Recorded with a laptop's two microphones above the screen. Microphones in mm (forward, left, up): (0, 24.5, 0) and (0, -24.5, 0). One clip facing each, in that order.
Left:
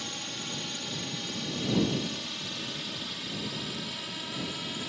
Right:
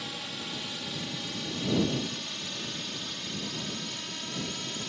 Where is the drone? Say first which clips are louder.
Even; 5° right (ahead or behind); by 4.9 s 5° left (ahead or behind).